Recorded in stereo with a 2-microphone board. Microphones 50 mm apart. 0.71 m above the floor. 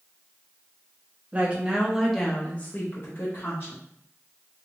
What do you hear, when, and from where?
1.3 s a woman speaking: 25° right (ahead or behind), 1.1 m; by 3.8 s 60° left (ahead or behind), 1.4 m